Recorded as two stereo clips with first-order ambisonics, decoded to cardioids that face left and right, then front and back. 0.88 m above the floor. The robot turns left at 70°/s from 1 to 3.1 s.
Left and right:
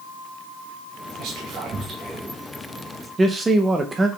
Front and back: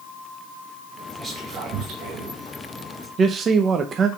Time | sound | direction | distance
1.2 | whispering | 105° right | 0.7 m
3.2 | a man speaking | 150° right | 0.6 m